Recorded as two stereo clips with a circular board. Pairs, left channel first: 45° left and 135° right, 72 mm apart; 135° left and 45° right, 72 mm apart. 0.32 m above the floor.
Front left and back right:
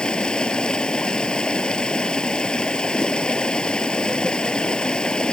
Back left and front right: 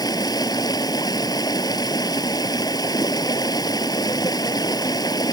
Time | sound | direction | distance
0.0 | running water | 120° left | ?